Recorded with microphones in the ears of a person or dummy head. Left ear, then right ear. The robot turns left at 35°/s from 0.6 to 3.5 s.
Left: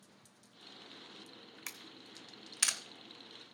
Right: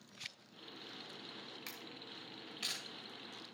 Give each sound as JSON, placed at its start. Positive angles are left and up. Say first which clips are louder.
{"t": 1.7, "sound": "a camera shutter", "louder": "even", "side_deg": 25, "distance_m": 0.9}